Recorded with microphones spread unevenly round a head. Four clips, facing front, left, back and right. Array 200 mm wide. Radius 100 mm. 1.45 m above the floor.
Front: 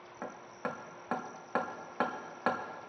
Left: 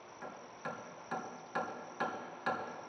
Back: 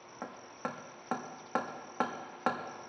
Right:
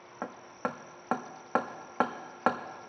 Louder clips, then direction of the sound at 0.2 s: Right 9 dB, front 1 dB; 95° right.